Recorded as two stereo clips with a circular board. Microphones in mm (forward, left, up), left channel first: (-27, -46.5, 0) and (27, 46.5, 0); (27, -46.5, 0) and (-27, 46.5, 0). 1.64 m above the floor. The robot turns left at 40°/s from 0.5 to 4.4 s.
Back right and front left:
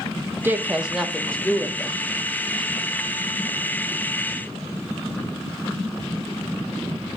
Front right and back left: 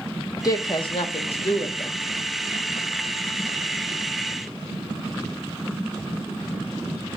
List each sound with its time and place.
0.4 s a woman speaking: 10° right, 1.5 m; by 2.0 s 65° right, 1.5 m